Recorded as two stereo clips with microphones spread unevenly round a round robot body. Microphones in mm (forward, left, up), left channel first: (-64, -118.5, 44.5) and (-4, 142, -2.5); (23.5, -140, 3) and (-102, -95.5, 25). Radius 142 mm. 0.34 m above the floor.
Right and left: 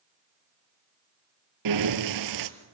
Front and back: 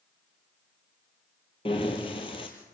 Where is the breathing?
55° left, 1.1 m.